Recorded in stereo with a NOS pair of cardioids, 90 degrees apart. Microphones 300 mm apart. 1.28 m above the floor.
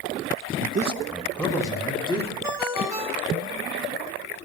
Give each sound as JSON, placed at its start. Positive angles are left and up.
{"t": 0.6, "sound": "a man speaking", "azimuth_deg": -40, "distance_m": 0.7}
{"t": 2.4, "sound": "a ringtone", "azimuth_deg": -10, "distance_m": 3.0}